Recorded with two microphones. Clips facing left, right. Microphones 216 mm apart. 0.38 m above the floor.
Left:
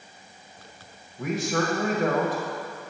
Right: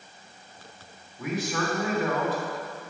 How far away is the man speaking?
About 1.3 m.